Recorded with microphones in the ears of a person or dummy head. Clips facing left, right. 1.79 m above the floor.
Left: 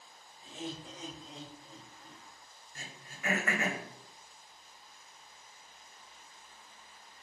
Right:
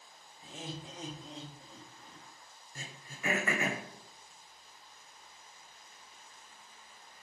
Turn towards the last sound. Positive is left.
turn(degrees=-75)  # may be behind; listen again after turning